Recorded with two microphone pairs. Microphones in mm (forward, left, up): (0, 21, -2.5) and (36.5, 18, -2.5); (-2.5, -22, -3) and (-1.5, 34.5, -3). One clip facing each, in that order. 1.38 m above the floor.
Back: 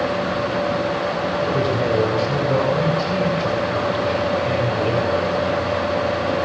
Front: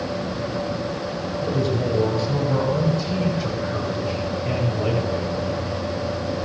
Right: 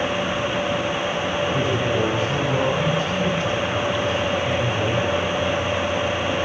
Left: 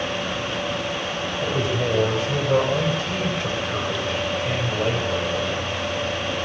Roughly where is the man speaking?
Behind left.